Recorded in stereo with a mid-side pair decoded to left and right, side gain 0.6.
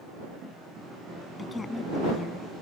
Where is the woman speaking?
25° left.